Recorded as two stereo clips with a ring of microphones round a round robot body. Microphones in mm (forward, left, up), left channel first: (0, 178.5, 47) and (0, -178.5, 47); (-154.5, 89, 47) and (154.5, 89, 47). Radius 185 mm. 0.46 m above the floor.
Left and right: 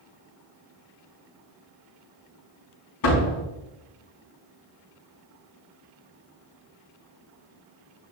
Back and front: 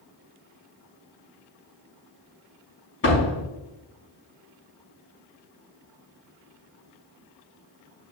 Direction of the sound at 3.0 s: 125° left.